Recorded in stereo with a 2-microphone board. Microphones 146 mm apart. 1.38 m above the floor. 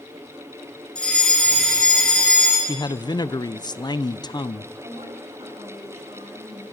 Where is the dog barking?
No dog barking in this recording.